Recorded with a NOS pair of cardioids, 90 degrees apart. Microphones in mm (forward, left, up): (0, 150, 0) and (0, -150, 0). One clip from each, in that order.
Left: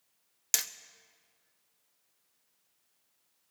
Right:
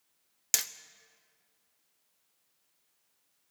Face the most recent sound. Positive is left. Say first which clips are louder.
# even
turn(degrees=0)